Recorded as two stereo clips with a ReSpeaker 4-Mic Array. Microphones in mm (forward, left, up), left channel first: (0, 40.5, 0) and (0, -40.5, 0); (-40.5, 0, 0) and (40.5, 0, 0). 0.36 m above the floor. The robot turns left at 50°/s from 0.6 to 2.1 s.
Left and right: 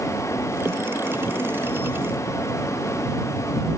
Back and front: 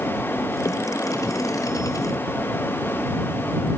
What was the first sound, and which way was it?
Only background noise.